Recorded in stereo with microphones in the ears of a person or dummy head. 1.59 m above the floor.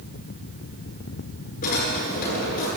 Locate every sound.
1.6 s a drawer: 50° left (ahead or behind), 9.5 m